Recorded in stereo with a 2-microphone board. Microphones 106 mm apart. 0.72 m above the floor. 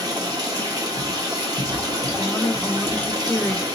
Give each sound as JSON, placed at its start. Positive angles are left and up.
{"t": 0.0, "sound": "running water", "side_deg": -35, "distance_m": 1.4}
{"t": 2.2, "sound": "a woman speaking", "side_deg": 15, "distance_m": 0.5}